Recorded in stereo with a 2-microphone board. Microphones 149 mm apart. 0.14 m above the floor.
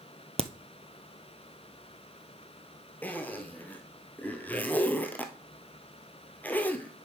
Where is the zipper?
10° left (ahead or behind), 1.0 m.